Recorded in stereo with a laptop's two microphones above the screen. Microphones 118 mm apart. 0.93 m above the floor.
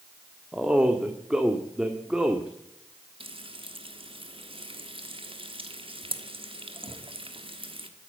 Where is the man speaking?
5° right (ahead or behind), 1.8 m.